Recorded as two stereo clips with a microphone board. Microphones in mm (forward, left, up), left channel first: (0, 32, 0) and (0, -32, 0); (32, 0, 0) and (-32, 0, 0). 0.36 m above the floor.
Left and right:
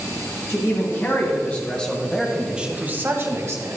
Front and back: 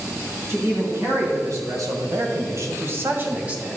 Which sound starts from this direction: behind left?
A man speaking, at 0.5 s.